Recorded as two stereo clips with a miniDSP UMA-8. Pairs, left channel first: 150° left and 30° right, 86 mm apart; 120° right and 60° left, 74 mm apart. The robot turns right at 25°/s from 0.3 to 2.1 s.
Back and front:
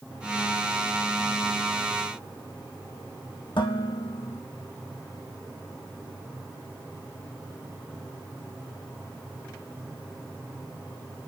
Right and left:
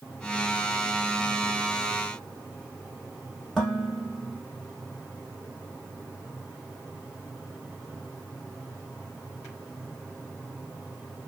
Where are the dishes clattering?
155° left, 4.5 m.